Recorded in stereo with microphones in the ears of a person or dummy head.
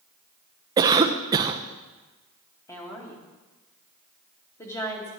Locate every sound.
0.8 s a cough: 25° right (ahead or behind), 0.6 m
2.7 s a woman speaking: 15° left (ahead or behind), 2 m